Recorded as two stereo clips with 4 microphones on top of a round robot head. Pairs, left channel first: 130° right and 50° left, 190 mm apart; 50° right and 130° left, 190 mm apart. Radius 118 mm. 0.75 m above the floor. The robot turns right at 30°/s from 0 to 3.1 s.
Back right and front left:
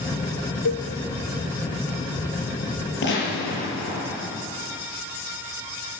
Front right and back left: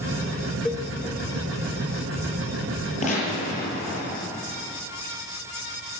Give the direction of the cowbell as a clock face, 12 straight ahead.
4 o'clock.